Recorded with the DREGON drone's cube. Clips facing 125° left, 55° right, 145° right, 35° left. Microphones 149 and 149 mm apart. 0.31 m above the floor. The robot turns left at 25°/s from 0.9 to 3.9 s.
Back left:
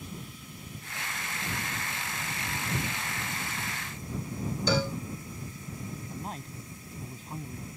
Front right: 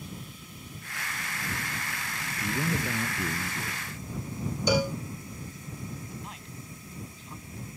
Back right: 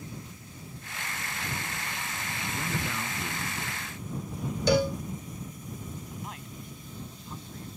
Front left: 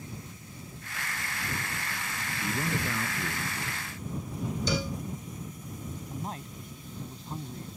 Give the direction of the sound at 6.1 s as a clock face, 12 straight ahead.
9 o'clock.